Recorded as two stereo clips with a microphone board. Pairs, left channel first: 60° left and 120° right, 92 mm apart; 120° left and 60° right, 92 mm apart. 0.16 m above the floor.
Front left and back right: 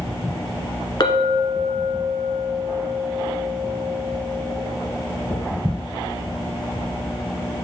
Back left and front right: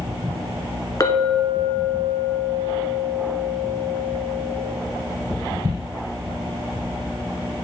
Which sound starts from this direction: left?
A clink, at 1.0 s.